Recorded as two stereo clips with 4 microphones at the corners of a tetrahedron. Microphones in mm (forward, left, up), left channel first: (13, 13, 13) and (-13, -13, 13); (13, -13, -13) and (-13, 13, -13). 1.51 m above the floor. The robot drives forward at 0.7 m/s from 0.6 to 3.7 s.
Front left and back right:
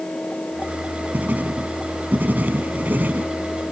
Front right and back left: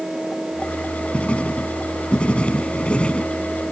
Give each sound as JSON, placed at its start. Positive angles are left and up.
{"t": 1.1, "sound": "writing", "azimuth_deg": -95}